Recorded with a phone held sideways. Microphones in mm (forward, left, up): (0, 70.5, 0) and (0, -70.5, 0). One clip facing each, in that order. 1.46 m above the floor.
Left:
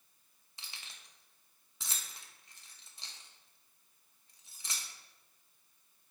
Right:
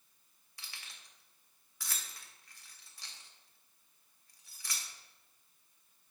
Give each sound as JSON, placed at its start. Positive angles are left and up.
{"t": 0.6, "sound": "keys jangling", "side_deg": 25, "distance_m": 0.6}